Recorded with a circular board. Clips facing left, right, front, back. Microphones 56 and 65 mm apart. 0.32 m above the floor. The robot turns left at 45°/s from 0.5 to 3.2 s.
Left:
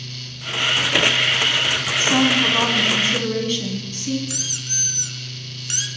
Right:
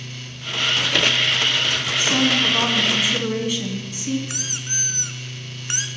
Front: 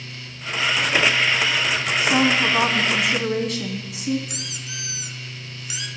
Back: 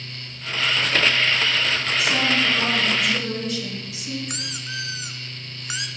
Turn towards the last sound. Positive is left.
turn(degrees=-140)